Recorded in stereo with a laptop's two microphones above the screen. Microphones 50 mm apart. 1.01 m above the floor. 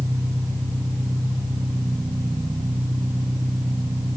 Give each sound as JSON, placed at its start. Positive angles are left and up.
{"t": 0.0, "sound": "an engine running", "side_deg": -80, "distance_m": 8.5}